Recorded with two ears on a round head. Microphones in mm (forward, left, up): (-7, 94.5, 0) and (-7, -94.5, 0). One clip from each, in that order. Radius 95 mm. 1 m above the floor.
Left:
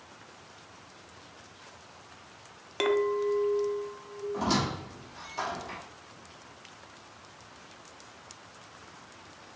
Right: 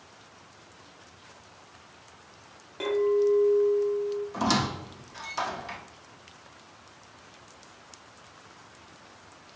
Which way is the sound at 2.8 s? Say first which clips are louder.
Right 3 dB; 65° left (ahead or behind).